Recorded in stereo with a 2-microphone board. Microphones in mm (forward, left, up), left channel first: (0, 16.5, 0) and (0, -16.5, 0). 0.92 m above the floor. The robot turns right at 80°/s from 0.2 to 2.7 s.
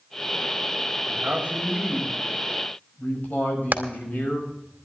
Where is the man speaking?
75° right, 6 m; by 4.5 s 55° left, 6 m.